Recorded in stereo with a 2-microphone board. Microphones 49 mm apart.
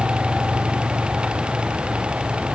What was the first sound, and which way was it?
Only background noise.